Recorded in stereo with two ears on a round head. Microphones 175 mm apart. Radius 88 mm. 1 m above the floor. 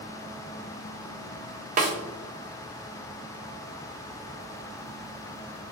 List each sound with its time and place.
1.8 s a snare drum: 40° right (ahead or behind), 0.6 m